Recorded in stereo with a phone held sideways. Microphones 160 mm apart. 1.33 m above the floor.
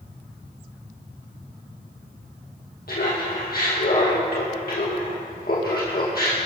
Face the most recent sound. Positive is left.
turn(degrees=70)  # may be behind; listen again after turning